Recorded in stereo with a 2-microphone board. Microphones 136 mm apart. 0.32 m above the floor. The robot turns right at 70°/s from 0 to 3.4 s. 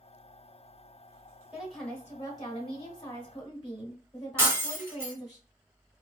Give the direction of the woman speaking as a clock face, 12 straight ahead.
12 o'clock.